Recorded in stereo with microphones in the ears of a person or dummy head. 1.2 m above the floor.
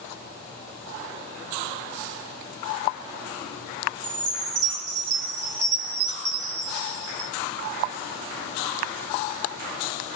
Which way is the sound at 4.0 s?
40° right (ahead or behind).